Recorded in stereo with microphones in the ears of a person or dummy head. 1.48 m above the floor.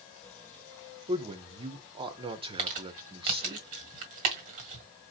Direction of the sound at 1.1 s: 25° right (ahead or behind).